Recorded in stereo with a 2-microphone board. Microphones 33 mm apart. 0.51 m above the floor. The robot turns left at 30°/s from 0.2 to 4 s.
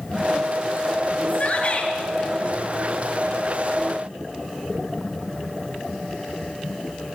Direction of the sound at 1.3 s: 55° left (ahead or behind).